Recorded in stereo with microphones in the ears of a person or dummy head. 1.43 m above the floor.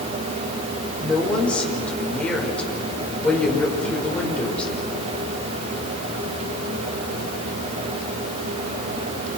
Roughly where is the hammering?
I don't hear hammering.